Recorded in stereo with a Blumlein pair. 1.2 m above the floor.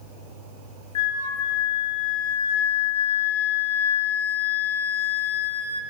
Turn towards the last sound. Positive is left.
turn(degrees=60)